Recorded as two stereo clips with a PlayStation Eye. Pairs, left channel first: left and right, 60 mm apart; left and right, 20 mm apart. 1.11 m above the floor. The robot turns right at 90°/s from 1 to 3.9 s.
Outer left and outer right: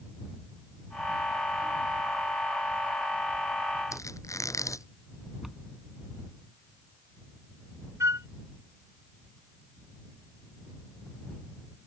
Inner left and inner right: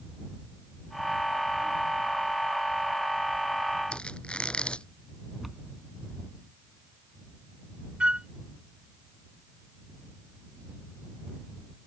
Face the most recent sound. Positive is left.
turn(degrees=-55)  # may be behind; listen again after turning